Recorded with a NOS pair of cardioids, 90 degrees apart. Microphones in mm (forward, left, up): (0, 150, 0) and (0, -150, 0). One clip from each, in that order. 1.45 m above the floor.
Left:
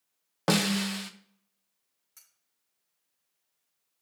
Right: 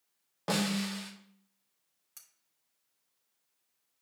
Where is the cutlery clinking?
30° right, 2.5 m.